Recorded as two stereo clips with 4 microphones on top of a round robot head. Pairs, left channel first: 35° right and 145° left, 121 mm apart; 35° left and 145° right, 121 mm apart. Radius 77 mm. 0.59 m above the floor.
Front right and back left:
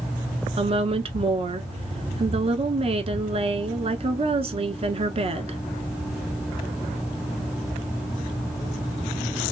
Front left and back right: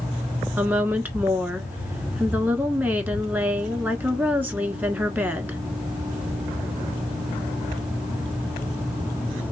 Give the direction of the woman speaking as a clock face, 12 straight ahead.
7 o'clock.